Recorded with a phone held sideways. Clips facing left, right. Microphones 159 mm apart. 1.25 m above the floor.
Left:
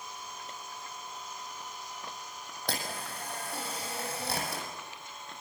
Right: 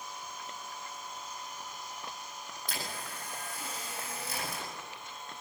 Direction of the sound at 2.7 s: 75° left (ahead or behind).